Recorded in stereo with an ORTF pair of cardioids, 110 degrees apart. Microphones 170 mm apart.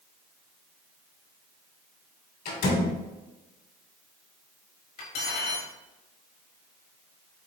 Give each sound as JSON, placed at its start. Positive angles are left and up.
{"t": 2.5, "sound": "a door slam", "azimuth_deg": 70, "distance_m": 1.7}
{"t": 5.0, "sound": "cutlery clinking", "azimuth_deg": 70, "distance_m": 1.6}